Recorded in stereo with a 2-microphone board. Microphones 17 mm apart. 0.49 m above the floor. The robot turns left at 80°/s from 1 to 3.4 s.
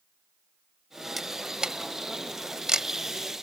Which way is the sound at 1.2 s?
10° right (ahead or behind).